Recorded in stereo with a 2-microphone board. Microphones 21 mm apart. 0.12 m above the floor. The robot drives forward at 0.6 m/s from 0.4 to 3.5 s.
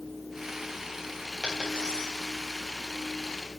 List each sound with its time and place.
1.4 s a dropped coin: 40° left (ahead or behind), 4.5 m